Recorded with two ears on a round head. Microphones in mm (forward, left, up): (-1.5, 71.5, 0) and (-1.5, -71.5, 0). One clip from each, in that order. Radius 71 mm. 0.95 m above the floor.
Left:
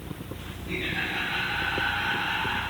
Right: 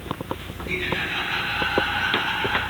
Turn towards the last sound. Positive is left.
turn(degrees=-60)  # may be behind; listen again after turning